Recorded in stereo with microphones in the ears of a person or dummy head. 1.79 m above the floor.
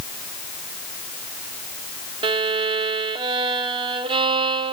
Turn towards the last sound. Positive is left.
turn(degrees=-25)  # may be behind; listen again after turning